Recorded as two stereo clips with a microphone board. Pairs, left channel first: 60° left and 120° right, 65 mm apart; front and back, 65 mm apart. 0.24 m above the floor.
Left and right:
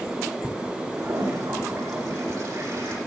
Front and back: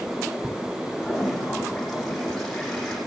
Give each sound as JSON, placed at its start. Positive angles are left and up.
{"t": 1.0, "sound": "a toilet flushing", "azimuth_deg": -85, "distance_m": 9.0}